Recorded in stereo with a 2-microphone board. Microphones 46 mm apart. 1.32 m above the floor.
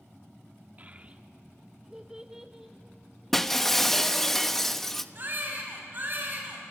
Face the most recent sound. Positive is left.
turn(degrees=-45)  # may be behind; listen again after turning